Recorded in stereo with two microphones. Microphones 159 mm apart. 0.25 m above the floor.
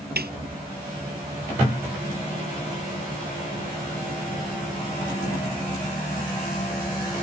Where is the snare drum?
80° right.